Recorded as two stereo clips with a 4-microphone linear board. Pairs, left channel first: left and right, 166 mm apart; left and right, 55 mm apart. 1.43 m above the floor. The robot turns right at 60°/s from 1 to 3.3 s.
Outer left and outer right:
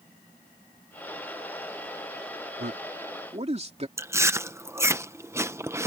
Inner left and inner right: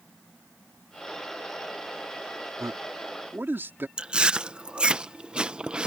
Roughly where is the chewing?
Centre.